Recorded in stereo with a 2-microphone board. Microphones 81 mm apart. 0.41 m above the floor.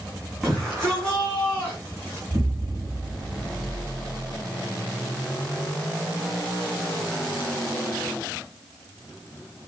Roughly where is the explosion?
Centre.